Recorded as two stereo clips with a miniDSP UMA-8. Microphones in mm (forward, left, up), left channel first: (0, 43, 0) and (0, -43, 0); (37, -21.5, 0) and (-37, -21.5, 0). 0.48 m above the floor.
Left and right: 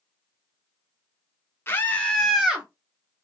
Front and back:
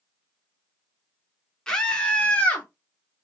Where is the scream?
70° left, 0.8 m; by 2.7 s 35° right, 0.8 m.